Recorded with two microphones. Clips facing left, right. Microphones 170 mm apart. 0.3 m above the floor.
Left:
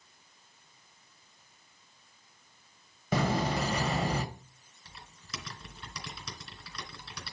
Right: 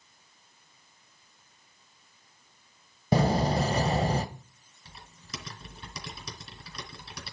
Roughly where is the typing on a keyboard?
Right.